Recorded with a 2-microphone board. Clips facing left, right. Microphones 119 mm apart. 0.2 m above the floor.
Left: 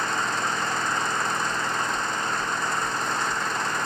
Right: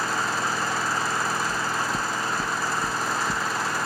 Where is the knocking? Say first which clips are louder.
Even; 70° right (ahead or behind).